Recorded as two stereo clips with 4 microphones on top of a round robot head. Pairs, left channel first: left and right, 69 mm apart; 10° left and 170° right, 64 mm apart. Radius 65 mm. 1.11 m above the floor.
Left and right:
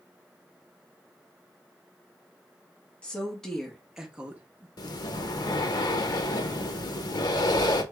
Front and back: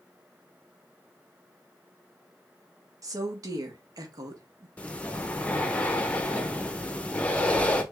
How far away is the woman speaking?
About 1.5 m.